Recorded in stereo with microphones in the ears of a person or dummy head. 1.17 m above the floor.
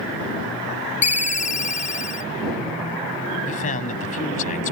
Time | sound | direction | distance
1.0 | a ringtone | 40° left (ahead or behind) | ?
3.5 | a man speaking | 45° left (ahead or behind) | ?